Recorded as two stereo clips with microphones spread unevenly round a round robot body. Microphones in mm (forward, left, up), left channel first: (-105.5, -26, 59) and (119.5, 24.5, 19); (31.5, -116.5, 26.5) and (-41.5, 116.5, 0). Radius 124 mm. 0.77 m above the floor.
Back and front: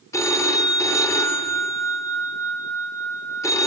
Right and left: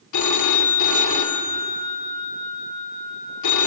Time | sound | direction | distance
0.1 | a phone ringing | 90° right | 1.1 m